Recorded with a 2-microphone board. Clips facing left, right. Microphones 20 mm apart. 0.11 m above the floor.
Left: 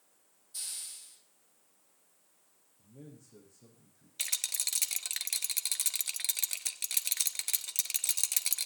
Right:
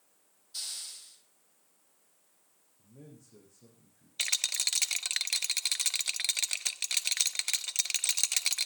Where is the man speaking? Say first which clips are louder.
Left 1 dB; 5° left (ahead or behind), 6.5 m.